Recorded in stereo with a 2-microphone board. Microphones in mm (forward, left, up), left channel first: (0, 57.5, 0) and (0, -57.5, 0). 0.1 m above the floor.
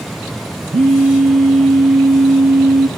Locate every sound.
0.7 s a phone buzzing: 80° right, 1.4 m